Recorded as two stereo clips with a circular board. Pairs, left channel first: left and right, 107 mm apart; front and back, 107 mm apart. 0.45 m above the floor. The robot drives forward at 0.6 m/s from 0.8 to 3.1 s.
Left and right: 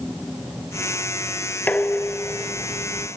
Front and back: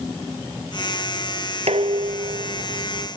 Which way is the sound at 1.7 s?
165° left.